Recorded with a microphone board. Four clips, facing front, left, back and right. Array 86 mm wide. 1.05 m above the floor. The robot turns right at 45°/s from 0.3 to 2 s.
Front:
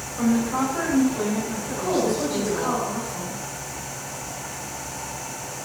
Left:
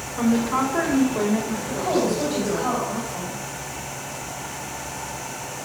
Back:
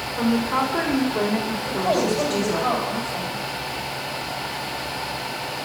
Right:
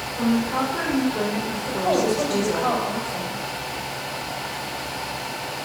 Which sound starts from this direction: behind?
A woman speaking, at 0.2 s.